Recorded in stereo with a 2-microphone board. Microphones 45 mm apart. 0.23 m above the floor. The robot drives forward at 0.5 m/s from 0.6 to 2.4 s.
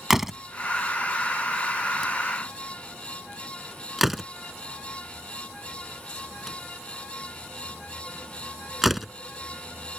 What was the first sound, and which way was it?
A door slam, 10° right (ahead or behind).